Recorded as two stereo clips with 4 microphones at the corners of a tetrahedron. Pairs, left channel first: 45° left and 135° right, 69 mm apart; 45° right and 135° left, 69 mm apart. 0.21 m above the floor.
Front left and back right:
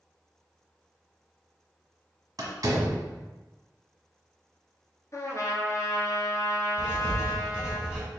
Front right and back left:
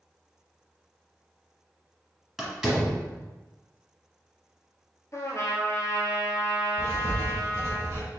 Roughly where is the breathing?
No breathing in this recording.